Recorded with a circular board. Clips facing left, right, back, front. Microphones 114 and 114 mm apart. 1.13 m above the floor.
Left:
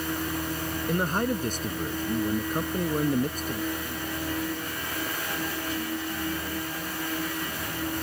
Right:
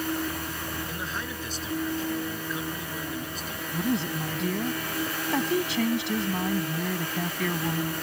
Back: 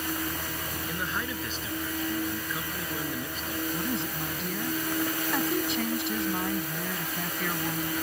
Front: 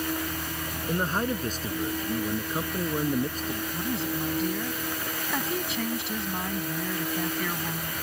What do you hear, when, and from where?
0.9 s a man speaking: 50° left
3.7 s a woman speaking: 90° right